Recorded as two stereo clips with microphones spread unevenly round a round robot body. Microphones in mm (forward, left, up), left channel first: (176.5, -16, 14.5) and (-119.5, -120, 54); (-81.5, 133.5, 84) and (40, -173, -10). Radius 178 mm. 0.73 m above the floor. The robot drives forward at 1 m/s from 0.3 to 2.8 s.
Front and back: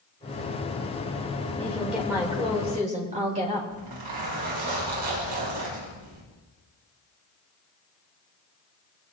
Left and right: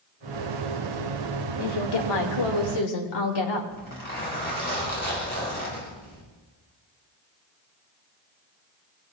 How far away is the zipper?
About 7 m.